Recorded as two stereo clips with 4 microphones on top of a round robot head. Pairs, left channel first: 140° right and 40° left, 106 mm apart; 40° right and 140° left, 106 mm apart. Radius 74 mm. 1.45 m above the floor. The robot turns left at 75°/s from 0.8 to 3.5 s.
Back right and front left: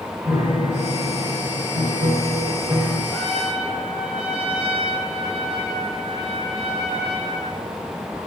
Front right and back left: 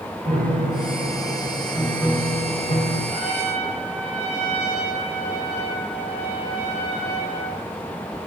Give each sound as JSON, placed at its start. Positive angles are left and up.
{"t": 0.2, "sound": "a piano", "azimuth_deg": 115, "distance_m": 5.0}
{"t": 3.1, "sound": "a trumpet", "azimuth_deg": 155, "distance_m": 7.5}